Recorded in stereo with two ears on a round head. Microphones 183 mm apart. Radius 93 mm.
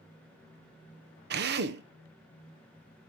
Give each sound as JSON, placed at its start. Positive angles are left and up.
{"t": 1.3, "sound": "a drill", "side_deg": -60, "distance_m": 1.0}